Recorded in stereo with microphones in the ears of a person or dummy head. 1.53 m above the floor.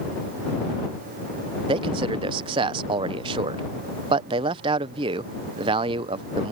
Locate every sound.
1.7 s a man speaking: 30° right (ahead or behind)